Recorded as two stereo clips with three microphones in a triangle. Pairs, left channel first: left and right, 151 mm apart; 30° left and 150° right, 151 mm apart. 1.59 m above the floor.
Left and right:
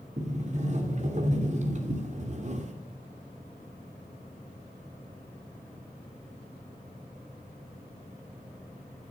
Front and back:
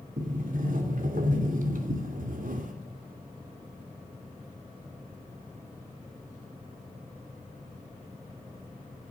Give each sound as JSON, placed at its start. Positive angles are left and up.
{"t": 0.2, "sound": "a sliding door", "azimuth_deg": -125, "distance_m": 2.5}